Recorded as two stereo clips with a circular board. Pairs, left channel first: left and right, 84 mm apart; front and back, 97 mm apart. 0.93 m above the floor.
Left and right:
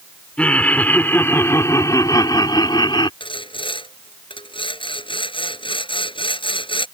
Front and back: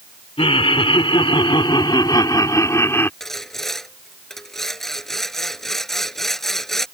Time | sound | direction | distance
0.4 | laughter | 10° left | ?
3.2 | sawing | 85° left | ?